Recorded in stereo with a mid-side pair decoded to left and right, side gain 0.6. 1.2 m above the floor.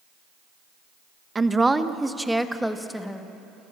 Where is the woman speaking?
20° right, 1.0 m; by 3.7 s 10° left, 2.0 m.